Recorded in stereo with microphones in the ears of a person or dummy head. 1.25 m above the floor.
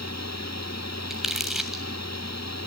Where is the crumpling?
Centre (ahead or behind), 2 m.